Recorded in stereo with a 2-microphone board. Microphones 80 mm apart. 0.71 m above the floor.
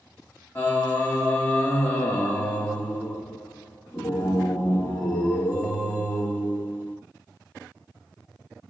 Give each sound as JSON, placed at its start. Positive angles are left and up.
{"t": 0.6, "sound": "singing", "side_deg": 20, "distance_m": 1.2}